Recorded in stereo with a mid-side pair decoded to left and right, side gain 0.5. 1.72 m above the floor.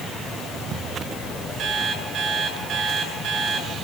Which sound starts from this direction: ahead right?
An alarm clock, at 1.6 s.